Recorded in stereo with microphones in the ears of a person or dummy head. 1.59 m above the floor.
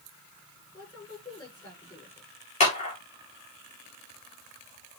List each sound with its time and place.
0.7 s a woman speaking: 20° left (ahead or behind), 6.5 m
2.6 s a clap: 40° left (ahead or behind), 2.5 m